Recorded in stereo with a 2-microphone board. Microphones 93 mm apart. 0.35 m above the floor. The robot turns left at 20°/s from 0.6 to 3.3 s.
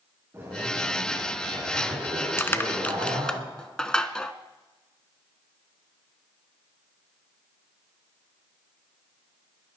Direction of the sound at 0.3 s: 25° right.